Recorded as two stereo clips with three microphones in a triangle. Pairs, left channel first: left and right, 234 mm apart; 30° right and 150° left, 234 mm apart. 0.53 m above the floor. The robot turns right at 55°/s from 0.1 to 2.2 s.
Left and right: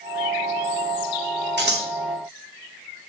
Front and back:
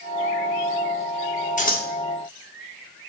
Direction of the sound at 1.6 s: 75° right.